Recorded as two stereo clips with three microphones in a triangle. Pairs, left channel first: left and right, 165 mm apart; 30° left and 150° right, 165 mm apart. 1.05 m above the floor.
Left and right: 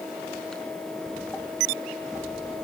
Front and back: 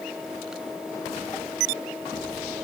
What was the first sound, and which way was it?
Only background noise.